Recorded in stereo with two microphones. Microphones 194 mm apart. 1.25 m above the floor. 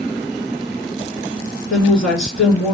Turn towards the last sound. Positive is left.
turn(degrees=70)  # may be behind; listen again after turning